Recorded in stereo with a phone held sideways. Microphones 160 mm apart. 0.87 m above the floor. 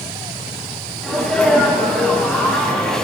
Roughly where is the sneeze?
Centre.